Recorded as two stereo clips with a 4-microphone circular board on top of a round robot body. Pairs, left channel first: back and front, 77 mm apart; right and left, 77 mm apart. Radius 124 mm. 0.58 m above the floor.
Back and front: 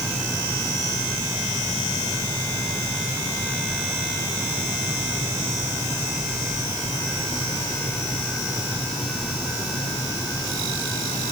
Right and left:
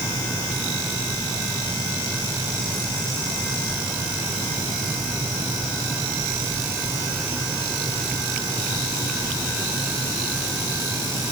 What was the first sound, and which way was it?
Only background noise.